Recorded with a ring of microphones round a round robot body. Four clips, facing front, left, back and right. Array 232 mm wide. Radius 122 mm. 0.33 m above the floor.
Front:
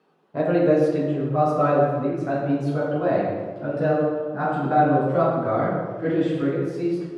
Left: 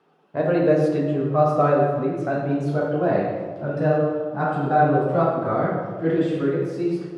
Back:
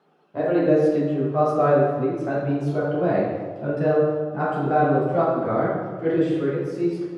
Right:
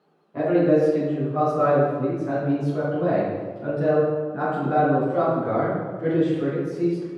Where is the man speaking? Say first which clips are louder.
Even, even; 75° left, 1.6 m; by 7.0 s 125° left, 4.5 m.